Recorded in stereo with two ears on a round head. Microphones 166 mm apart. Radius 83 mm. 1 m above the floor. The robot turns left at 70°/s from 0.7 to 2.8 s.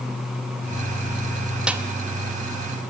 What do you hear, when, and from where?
1.7 s a snare drum: 5° right (ahead or behind), 1.1 m; by 1.8 s 15° right (ahead or behind), 1.1 m